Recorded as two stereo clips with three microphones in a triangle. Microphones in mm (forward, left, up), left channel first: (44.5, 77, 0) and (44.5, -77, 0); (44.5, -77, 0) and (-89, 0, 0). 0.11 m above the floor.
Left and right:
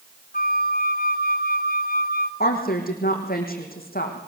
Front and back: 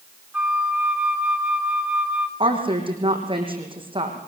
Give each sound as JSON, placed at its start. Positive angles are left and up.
{"t": 0.3, "sound": "a flute", "azimuth_deg": 70, "distance_m": 1.6}
{"t": 2.4, "sound": "a woman speaking", "azimuth_deg": 95, "distance_m": 4.5}